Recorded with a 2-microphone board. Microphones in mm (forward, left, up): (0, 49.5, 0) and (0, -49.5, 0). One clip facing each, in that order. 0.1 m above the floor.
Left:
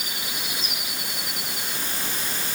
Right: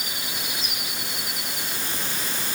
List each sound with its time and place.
Only background noise.